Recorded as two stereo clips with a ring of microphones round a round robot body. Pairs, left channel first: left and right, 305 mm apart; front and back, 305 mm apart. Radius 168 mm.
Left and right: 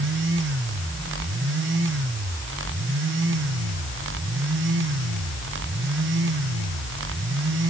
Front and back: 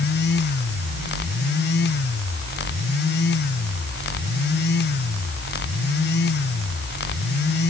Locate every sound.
Only background noise.